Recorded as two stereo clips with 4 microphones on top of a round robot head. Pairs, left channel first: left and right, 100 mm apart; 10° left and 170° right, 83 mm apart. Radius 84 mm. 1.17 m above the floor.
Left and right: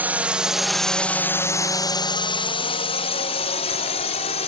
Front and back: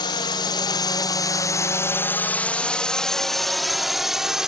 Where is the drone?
20° right; by 4.5 s 105° left.